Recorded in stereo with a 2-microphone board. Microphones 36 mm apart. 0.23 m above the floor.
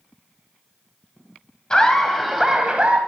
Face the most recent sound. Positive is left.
turn(degrees=-30)  # may be behind; listen again after turning